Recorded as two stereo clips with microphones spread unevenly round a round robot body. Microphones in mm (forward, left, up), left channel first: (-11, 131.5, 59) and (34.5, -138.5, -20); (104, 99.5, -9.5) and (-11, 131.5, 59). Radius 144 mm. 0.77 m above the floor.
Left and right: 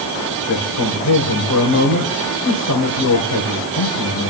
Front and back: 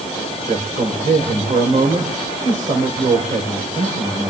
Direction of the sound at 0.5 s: 135° left.